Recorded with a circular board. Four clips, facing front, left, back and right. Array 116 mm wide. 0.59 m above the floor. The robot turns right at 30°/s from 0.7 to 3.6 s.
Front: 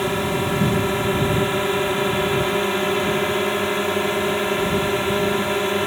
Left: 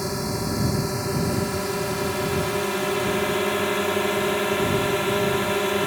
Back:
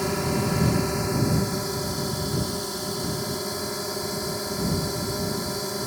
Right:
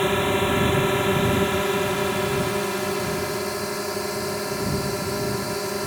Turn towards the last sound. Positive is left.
turn(degrees=30)